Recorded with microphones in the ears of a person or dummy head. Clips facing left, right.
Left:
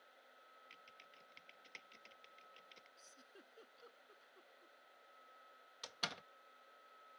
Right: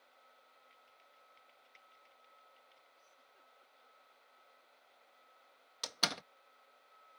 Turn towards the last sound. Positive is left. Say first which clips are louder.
# right 8 dB
turn(degrees=-60)  # may be behind; listen again after turning